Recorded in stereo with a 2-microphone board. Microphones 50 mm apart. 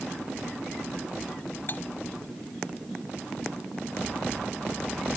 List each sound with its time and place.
1.7 s cutlery clinking: 40° left (ahead or behind)